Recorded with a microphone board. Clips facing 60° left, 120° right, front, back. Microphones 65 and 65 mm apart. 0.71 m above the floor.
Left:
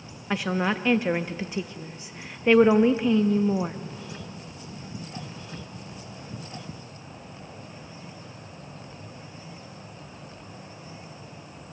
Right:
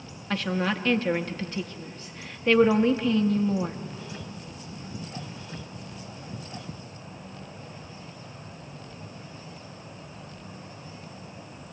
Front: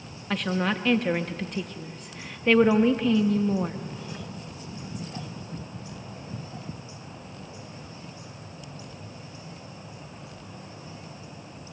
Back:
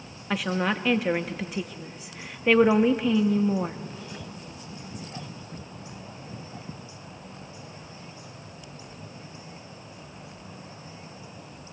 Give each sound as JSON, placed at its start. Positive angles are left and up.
{"t": 0.3, "sound": "a woman speaking", "azimuth_deg": 105, "distance_m": 0.5}